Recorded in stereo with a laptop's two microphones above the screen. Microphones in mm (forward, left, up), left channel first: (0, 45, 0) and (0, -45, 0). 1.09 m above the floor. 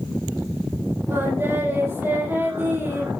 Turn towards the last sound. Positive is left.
turn(degrees=-25)  # may be behind; listen again after turning